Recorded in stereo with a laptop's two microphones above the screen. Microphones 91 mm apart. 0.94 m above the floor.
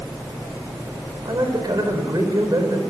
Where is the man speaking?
45° right (ahead or behind), 4.5 m.